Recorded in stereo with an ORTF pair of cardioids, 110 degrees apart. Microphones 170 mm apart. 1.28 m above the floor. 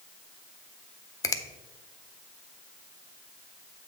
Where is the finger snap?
20° left, 0.6 m.